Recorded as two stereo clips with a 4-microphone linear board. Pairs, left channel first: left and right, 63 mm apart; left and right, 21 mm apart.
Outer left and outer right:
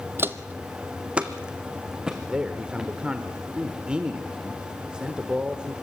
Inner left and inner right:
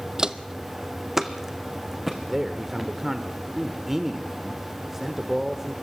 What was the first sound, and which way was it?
Footsteps, 35° right (ahead or behind).